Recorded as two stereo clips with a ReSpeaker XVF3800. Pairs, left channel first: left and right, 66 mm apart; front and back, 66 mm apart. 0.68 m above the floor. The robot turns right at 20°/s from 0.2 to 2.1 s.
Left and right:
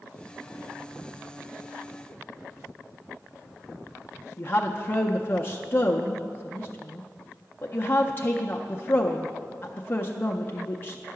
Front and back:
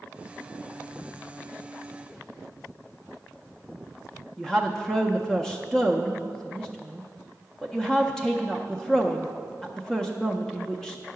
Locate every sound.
4.4 s a woman speaking: 75° left, 0.5 m